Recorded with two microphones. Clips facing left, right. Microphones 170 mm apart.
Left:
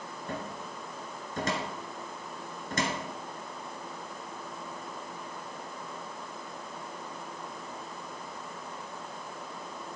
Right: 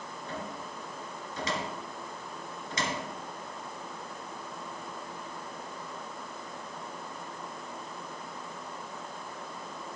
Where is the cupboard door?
50° left (ahead or behind), 2.0 m.